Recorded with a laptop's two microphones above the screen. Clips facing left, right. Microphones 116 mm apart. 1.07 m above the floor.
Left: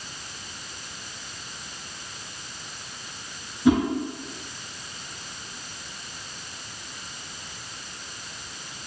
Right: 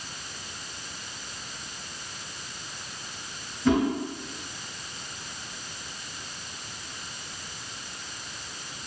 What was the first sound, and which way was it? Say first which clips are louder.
A whoosh: left 3 dB; 15° left (ahead or behind).